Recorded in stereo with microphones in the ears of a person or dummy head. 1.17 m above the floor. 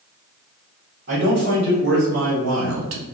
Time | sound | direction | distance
1.1 | a man speaking | 60° right (ahead or behind) | 1.5 m